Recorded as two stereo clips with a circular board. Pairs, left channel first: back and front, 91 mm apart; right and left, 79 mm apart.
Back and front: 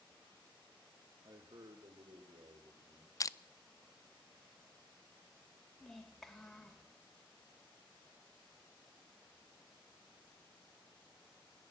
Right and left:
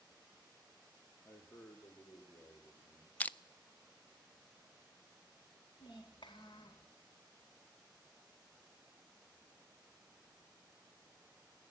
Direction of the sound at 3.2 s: 150° right.